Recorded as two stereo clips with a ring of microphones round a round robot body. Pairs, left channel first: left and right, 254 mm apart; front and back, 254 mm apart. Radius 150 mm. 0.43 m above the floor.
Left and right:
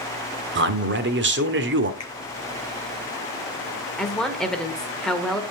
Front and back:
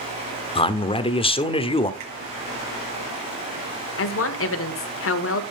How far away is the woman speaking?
About 1.3 m.